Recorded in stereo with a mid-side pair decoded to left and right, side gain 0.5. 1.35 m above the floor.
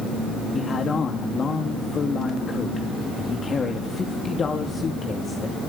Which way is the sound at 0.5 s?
35° left.